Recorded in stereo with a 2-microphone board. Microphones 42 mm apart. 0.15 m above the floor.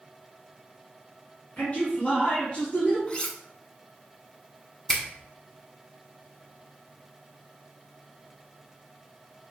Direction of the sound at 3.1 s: 30° left (ahead or behind).